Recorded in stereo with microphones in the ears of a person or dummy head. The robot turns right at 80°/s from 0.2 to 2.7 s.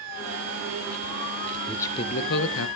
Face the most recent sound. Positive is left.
turn(degrees=85)